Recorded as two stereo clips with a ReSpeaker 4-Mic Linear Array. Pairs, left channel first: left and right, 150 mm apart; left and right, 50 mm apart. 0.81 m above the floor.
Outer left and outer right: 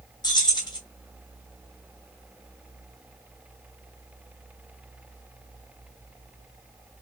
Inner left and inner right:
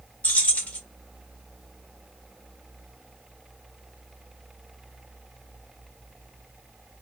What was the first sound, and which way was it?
Keys jangling, 25° left (ahead or behind).